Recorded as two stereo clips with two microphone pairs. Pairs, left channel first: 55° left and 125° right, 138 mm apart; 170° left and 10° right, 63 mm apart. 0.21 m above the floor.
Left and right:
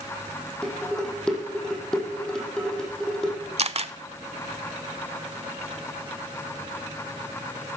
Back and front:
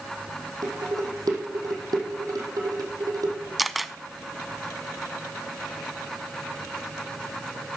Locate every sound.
0.6 s dishes clattering: 30° right, 5 m
3.6 s a camera shutter: 100° right, 0.6 m